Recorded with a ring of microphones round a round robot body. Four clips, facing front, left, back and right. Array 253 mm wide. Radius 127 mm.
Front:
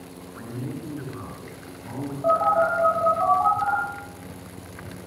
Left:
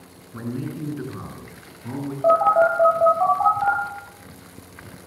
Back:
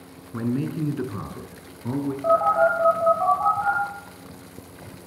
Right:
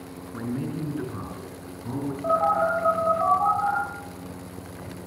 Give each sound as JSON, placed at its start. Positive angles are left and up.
{"t": 0.3, "sound": "a man speaking", "azimuth_deg": 175, "distance_m": 6.0}
{"t": 2.2, "sound": "a phone buzzing", "azimuth_deg": 90, "distance_m": 8.5}